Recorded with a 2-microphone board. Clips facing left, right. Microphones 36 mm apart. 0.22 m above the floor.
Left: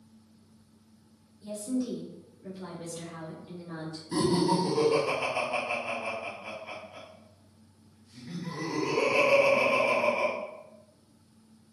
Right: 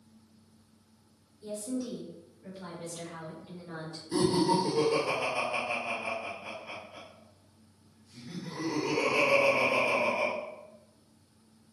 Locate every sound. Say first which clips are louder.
1.4 s a woman speaking: left 3 dB; 20° left (ahead or behind), 1.2 m; by 4.0 s 45° right (ahead or behind), 1.6 m
4.1 s laughter: even; 10° left (ahead or behind), 1.6 m